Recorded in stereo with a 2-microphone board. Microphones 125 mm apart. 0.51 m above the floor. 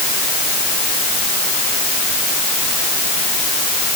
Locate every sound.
Only background noise.